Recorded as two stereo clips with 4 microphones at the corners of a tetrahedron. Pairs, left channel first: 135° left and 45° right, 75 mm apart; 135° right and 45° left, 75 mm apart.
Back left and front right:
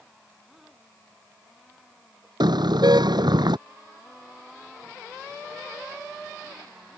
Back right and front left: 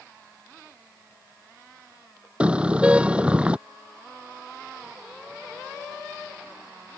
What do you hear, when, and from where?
2.4 s a car horn: 30° right